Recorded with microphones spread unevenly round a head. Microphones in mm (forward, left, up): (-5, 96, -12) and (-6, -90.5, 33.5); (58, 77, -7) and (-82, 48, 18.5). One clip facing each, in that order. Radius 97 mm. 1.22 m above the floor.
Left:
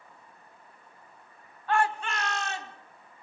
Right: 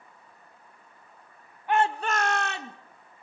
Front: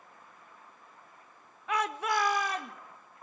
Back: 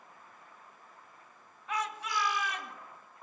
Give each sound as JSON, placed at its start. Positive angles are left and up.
{"t": 1.7, "sound": "a shout", "azimuth_deg": -10, "distance_m": 1.1}